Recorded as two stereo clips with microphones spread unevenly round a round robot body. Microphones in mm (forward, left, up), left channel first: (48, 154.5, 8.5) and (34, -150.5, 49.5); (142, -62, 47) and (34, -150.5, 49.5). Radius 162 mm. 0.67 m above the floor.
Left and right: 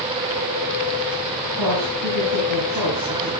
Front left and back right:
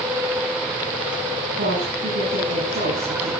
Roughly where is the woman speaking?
Behind right.